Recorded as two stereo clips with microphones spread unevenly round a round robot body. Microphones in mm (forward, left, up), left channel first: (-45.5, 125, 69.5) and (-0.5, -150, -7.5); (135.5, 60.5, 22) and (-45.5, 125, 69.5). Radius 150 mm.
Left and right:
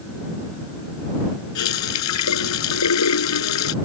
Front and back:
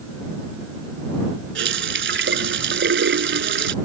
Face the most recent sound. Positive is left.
turn(degrees=135)